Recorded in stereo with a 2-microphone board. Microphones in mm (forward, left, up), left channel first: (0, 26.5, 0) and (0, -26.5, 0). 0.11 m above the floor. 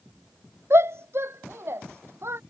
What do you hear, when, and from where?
0.7 s a shout: 55° right (ahead or behind)